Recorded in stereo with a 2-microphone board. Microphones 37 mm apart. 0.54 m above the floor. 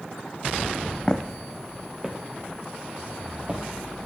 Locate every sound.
1.1 s footsteps: 20° left (ahead or behind), 1.2 m; by 3.6 s 30° right (ahead or behind), 3.5 m